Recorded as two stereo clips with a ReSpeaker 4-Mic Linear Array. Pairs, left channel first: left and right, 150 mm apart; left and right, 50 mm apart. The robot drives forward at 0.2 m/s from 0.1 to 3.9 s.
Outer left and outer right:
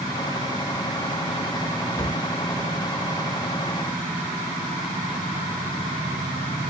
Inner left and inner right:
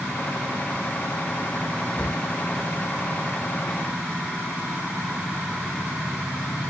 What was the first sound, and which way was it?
A cupboard door, 20° left (ahead or behind).